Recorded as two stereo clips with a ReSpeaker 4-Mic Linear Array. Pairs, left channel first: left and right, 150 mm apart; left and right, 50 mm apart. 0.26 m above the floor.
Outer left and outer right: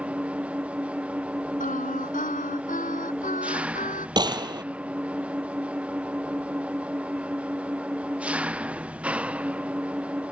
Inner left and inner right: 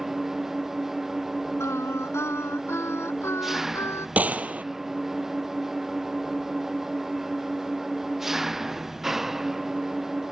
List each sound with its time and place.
0.0 s an engine running: 10° right (ahead or behind)
1.6 s singing: 65° left (ahead or behind)
4.2 s a gunshot: 30° right (ahead or behind)